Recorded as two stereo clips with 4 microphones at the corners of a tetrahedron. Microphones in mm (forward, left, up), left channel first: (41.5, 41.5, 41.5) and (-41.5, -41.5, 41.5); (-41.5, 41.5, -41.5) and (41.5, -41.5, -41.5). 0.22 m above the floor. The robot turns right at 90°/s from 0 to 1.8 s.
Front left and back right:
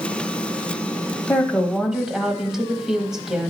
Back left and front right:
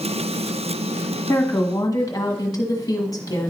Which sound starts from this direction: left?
A woman speaking, at 1.3 s.